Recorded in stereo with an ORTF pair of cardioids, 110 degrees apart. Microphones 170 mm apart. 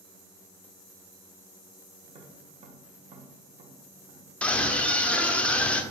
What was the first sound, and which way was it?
Tapping, 35° right.